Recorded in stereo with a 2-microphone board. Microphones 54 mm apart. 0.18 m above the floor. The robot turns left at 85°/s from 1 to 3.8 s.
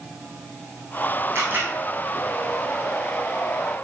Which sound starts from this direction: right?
A camera shutter, at 1.4 s.